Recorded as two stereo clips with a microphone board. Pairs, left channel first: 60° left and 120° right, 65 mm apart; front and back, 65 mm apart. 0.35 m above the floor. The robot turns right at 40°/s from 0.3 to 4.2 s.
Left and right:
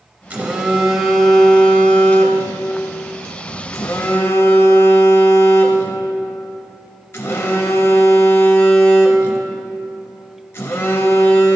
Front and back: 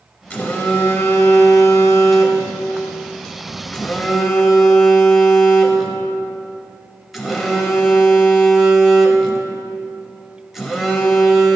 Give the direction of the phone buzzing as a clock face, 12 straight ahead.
2 o'clock.